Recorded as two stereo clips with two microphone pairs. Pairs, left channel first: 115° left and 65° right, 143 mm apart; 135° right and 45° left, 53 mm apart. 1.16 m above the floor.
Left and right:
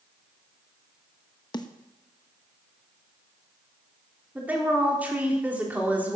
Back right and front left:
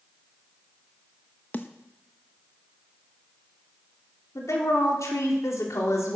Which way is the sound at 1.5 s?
175° left.